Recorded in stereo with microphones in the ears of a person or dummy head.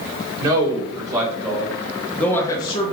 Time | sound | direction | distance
0.4 | a man speaking | 30° right (ahead or behind) | 1.5 m